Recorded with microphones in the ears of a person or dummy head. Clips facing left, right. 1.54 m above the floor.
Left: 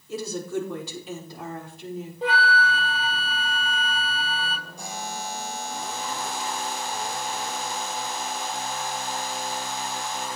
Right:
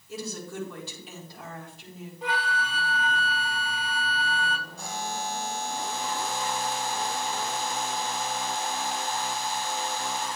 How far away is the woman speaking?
About 4.5 m.